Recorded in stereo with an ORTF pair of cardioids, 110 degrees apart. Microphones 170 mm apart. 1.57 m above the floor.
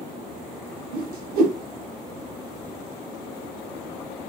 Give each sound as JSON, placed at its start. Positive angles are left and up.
{"t": 0.9, "sound": "a whoosh", "azimuth_deg": -60, "distance_m": 1.2}